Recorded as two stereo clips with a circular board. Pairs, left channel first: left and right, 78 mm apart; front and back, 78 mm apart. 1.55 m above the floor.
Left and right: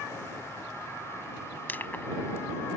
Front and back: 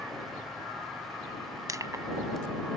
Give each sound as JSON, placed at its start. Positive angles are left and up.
{"t": 1.7, "sound": "crushing", "azimuth_deg": 150}